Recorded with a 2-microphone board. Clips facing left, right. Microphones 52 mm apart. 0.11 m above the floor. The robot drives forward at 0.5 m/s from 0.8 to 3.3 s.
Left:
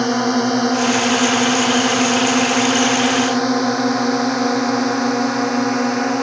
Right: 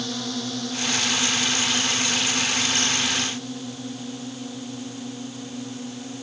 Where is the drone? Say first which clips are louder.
Left 13 dB; 55° left (ahead or behind); by 6.2 s 70° left (ahead or behind).